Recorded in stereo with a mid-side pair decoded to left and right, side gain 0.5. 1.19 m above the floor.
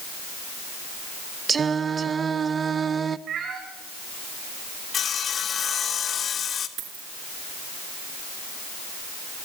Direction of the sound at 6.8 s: 65° right.